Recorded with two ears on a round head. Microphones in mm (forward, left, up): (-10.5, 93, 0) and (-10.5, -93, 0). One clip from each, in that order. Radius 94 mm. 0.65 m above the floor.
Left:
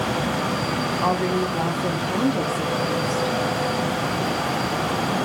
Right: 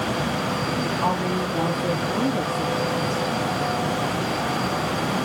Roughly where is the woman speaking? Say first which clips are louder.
Left 3 dB; centre.